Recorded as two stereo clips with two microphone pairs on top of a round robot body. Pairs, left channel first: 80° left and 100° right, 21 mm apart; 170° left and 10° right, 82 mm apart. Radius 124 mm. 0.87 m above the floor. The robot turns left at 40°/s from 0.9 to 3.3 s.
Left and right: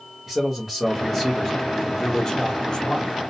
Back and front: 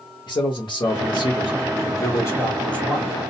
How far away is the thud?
No thud in this recording.